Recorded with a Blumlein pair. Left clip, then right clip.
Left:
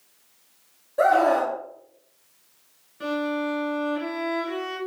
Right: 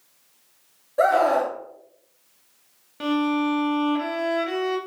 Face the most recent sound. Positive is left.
turn(degrees=-35)